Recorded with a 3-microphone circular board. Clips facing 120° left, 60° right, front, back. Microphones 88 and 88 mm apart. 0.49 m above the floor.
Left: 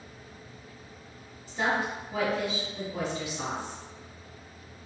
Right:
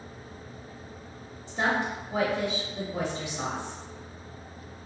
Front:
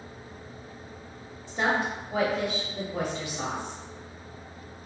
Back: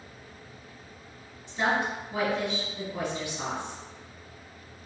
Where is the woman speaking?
5° right, 1.1 m.